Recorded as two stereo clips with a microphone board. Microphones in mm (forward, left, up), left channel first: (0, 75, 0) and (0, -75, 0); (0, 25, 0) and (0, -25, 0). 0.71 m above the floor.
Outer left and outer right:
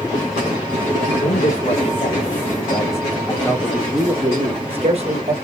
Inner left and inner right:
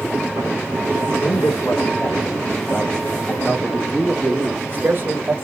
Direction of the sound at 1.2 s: 55° left (ahead or behind).